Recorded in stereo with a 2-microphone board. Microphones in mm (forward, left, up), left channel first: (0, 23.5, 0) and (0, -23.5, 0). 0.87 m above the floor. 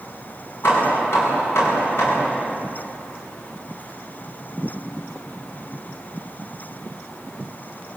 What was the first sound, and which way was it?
Hammering, 65° left (ahead or behind).